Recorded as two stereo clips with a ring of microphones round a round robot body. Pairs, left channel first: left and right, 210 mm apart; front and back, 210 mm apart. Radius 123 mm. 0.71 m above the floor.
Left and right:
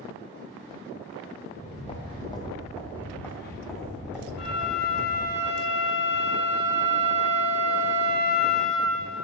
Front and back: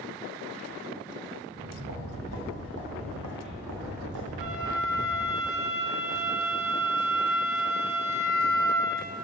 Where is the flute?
100° left, 1.8 m.